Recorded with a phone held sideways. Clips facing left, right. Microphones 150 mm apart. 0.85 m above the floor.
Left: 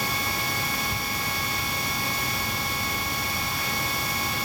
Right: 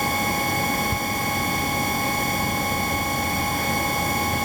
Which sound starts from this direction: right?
A machine running, at 0.0 s.